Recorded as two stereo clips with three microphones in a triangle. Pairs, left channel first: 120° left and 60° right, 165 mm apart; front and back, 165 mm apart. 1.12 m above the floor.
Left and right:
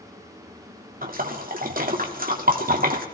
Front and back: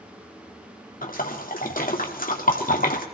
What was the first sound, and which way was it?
A splash, 30° right.